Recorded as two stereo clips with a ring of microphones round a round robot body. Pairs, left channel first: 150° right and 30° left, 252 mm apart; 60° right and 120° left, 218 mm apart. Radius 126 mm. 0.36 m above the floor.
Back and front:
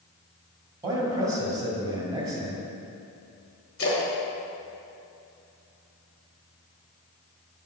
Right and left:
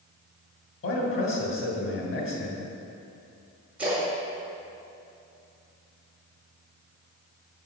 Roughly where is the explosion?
No explosion in this recording.